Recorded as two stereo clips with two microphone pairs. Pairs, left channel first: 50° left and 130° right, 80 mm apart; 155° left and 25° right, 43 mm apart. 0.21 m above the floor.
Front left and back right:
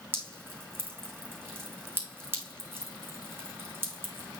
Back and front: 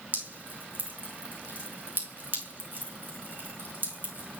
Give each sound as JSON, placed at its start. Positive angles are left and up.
{"t": 0.1, "sound": "dripping", "azimuth_deg": -70, "distance_m": 3.5}